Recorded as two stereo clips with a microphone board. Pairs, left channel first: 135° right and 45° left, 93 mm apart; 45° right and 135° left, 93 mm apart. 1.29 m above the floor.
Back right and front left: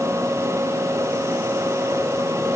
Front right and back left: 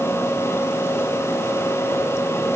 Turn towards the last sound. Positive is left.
No sound to turn to.